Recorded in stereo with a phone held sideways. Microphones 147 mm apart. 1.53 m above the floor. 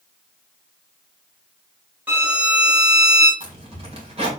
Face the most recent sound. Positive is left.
turn(degrees=-45)  # may be behind; listen again after turning